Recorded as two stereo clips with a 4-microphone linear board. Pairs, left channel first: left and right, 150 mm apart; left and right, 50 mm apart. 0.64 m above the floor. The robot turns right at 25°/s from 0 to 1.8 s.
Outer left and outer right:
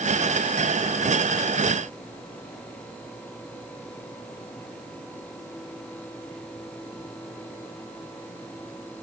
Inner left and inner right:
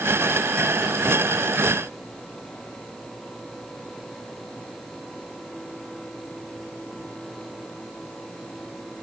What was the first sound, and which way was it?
Only background noise.